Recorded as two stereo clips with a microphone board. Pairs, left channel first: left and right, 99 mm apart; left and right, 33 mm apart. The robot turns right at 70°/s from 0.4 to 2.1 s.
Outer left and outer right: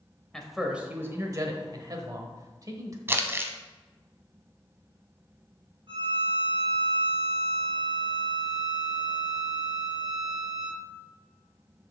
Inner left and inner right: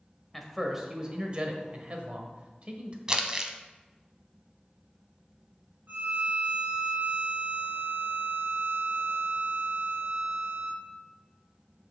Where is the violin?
60° right (ahead or behind), 3 m.